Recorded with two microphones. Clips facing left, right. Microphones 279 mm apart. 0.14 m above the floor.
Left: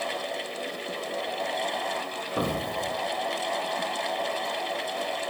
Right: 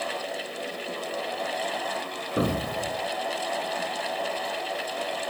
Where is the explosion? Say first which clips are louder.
Right 3 dB; 20° right (ahead or behind), 1.1 m.